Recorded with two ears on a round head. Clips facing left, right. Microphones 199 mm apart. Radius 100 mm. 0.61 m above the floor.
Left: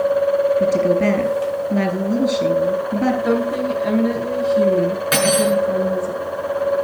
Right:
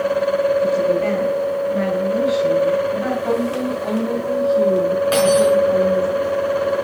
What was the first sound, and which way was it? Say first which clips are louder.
A woman speaking: left 1 dB; 55° left (ahead or behind).